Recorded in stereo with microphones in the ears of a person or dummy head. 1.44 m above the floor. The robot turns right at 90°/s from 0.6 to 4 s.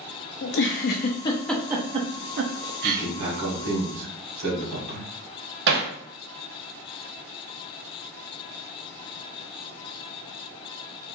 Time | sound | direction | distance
0.4 | a giggle | 65° left (ahead or behind) | 0.6 m
2.8 | a man speaking | 170° right | 1.6 m
5.7 | hammering | 60° right (ahead or behind) | 0.7 m